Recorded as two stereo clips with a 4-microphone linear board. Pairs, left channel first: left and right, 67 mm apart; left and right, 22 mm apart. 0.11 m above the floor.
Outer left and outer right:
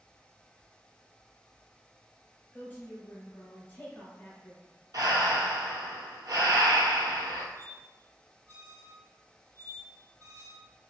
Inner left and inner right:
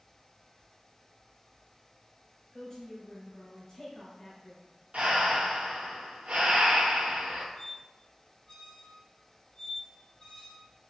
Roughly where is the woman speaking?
Left.